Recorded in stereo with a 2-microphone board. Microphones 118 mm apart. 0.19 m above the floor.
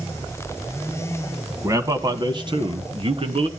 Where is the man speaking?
25° right (ahead or behind), 1.3 m; by 3.5 s 50° right (ahead or behind), 2 m.